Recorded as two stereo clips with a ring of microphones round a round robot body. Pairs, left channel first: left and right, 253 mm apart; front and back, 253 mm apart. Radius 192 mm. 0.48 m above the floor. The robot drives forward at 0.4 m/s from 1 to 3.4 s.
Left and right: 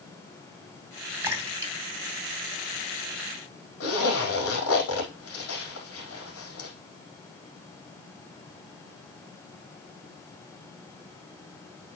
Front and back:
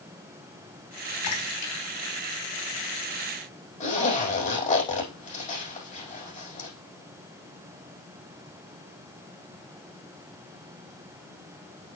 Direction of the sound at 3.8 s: 60° left.